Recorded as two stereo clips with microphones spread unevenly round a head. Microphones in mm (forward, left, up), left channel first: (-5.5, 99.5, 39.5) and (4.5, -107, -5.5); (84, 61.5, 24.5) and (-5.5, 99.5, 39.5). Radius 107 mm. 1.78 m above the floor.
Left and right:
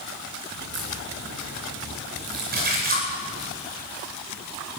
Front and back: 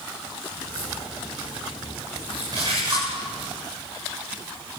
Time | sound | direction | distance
0.6 | a crack | 80° right | 9 m
2.5 | a splash | 135° right | 10 m